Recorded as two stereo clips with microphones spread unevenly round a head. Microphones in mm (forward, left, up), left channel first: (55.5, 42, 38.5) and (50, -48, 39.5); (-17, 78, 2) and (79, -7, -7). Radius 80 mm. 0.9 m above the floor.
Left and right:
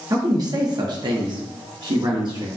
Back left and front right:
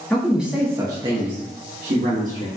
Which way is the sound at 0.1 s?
135° right.